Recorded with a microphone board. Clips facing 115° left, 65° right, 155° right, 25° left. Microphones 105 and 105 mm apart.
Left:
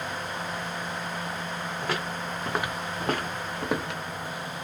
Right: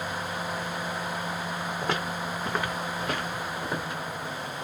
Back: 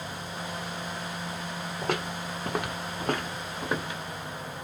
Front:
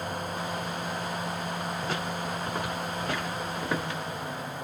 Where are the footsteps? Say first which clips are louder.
Right 1 dB, even; 135° right, 1.3 m; by 4.0 s 120° left, 1.3 m.